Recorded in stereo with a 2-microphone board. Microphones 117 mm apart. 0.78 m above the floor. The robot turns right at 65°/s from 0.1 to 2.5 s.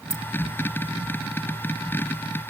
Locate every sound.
0.1 s keys jangling: 60° right (ahead or behind); by 0.2 s 50° right (ahead or behind)